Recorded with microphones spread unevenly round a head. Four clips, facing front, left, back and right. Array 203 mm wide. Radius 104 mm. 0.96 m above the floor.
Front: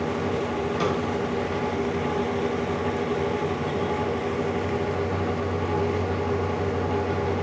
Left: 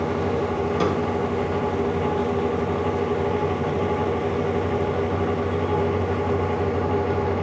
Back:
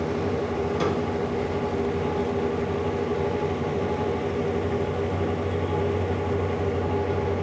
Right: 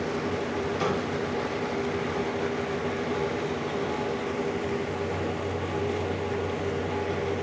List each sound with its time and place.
0.8 s a snare drum: 75° left, 1.7 m